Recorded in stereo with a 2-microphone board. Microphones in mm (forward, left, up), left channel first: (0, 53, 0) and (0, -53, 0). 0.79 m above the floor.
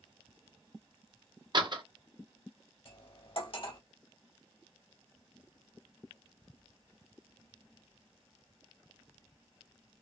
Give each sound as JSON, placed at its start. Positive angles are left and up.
{"t": 1.5, "sound": "a door slam", "side_deg": -45, "distance_m": 0.7}
{"t": 2.9, "sound": "cutlery clinking", "side_deg": 60, "distance_m": 2.0}